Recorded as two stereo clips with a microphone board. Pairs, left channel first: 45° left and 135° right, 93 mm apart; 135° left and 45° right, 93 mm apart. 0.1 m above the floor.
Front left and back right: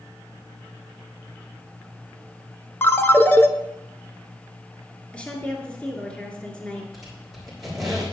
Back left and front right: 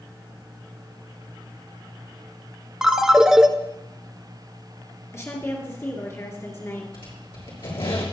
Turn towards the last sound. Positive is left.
turn(degrees=135)